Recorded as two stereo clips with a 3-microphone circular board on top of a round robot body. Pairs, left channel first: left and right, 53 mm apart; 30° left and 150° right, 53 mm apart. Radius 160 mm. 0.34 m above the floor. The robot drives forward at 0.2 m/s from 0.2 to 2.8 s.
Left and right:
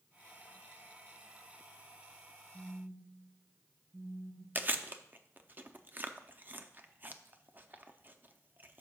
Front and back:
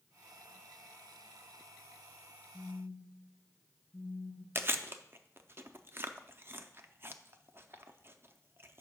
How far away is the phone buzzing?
About 1.6 m.